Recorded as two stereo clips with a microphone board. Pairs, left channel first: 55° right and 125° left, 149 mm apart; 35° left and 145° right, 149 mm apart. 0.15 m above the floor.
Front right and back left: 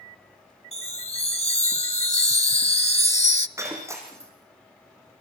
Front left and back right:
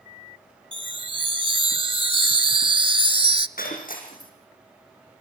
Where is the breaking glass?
55° left, 5.5 m.